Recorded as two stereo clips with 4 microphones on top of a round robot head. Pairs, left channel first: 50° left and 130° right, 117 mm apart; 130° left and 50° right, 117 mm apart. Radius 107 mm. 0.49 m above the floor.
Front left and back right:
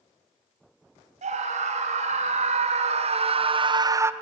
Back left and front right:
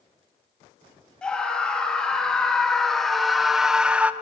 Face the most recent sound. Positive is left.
turn(degrees=-105)